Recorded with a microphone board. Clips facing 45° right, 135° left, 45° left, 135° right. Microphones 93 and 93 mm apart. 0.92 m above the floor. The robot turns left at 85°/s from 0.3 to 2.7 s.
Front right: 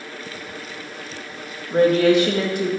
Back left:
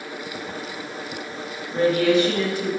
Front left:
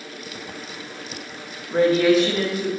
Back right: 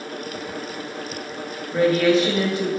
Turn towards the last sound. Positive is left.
turn(degrees=-85)